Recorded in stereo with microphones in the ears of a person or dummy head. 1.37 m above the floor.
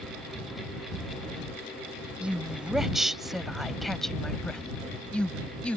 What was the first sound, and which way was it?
A woman speaking, 5° right (ahead or behind).